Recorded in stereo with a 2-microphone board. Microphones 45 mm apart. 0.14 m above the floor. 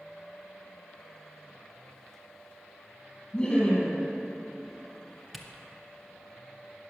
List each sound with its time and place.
3.3 s laughter: 15° left (ahead or behind), 3.5 m
5.3 s a camera shutter: 5° right (ahead or behind), 1.0 m